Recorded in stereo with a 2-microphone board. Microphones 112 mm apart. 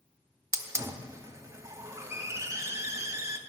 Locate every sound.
0.5 s a hiss: 25° right (ahead or behind), 0.7 m